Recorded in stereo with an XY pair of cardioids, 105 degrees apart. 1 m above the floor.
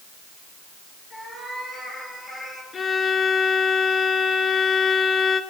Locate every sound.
1.1 s a cat meowing: straight ahead, 8.5 m
2.7 s a violin: 40° left, 2.5 m